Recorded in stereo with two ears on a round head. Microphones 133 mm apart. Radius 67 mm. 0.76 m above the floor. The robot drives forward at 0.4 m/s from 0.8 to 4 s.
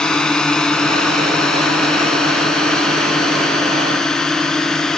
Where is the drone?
5° left (ahead or behind).